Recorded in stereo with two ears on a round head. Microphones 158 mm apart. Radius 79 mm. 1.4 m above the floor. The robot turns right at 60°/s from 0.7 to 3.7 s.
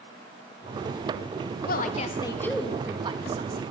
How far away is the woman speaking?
About 1.8 m.